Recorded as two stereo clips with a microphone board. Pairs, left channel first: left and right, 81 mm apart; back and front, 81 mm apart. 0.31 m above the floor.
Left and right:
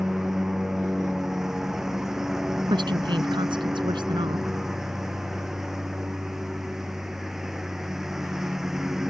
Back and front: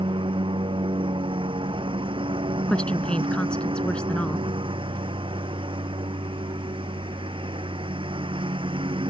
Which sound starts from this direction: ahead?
A lawn mower, at 0.0 s.